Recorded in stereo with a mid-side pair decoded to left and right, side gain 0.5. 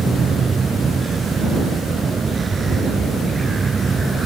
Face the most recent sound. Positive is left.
turn(degrees=-30)